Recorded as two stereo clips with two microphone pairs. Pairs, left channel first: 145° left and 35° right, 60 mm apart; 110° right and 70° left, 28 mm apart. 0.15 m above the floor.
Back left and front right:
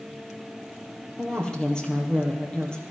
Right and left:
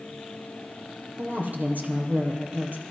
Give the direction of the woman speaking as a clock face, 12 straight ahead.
10 o'clock.